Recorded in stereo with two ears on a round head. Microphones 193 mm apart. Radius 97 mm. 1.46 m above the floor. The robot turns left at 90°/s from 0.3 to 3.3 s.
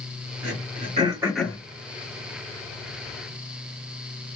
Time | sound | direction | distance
0.4 | throat clearing | 70° right (ahead or behind) | 1.6 m